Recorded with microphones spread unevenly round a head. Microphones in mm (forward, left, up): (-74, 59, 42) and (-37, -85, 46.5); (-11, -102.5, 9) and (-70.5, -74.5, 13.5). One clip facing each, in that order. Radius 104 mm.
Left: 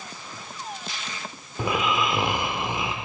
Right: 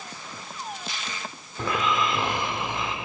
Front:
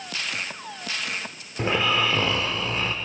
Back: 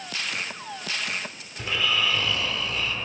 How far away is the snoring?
About 0.9 m.